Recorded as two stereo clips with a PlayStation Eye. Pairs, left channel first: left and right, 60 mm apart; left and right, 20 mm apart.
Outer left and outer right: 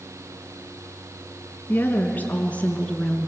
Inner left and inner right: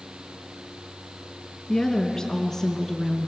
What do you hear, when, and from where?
1.7 s a woman speaking: 30° left (ahead or behind), 3 m; by 3.3 s 15° left (ahead or behind), 2.5 m